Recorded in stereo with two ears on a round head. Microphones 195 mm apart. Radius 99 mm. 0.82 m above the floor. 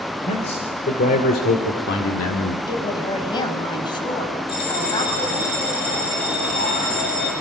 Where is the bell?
50° left (ahead or behind), 10 m.